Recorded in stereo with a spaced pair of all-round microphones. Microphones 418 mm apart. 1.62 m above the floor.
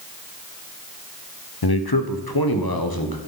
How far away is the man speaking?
About 0.8 m.